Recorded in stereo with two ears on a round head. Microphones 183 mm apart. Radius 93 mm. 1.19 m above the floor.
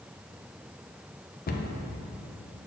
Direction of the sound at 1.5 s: 45° left (ahead or behind).